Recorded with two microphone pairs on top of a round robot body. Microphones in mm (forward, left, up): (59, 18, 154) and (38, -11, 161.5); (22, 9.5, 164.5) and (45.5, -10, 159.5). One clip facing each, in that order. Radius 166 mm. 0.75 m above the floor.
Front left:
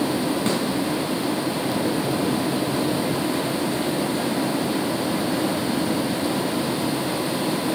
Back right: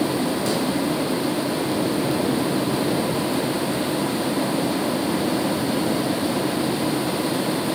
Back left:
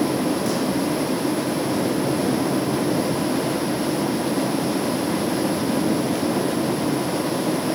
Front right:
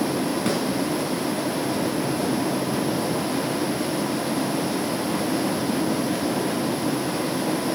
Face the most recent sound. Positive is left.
turn(degrees=5)